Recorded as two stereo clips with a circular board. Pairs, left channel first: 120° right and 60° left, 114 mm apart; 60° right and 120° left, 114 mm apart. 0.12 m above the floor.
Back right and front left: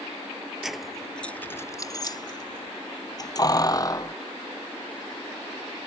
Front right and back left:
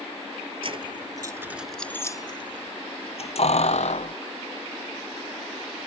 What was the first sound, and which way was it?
Keys jangling, 145° left.